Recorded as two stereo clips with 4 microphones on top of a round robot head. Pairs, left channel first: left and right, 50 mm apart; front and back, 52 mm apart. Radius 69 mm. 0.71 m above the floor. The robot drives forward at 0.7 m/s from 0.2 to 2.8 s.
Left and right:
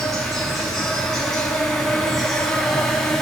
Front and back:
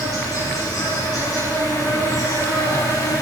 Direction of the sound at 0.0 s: 5° left.